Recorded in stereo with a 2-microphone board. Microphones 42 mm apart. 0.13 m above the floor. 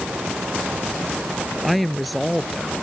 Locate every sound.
1.6 s a woman speaking: centre (ahead or behind)